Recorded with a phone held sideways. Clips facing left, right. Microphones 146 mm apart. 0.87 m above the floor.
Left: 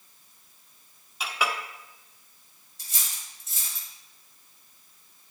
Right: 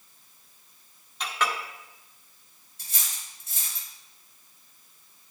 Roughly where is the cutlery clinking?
Right.